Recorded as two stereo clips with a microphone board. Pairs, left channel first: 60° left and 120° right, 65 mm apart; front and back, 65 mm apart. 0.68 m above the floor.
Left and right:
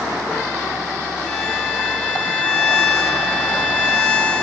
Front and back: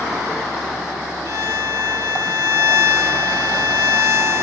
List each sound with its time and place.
1.3 s a violin: 135° left, 1.0 m